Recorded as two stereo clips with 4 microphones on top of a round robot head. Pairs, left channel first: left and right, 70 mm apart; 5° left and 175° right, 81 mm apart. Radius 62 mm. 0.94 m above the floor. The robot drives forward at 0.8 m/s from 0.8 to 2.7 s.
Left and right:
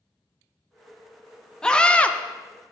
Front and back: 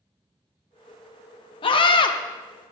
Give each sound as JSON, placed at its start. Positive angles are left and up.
{"t": 1.6, "sound": "a scream", "azimuth_deg": 10, "distance_m": 1.0}